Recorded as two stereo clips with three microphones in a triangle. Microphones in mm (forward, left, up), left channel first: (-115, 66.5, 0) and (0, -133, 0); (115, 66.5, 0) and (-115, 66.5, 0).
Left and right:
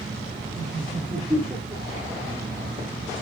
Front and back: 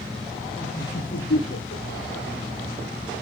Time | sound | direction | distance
0.6 | laughter | 30° left | 8 m